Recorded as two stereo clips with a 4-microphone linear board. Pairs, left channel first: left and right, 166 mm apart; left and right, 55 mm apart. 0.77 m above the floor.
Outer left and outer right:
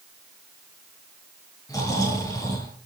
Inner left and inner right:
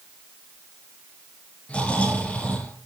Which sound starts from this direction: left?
Snoring, at 1.7 s.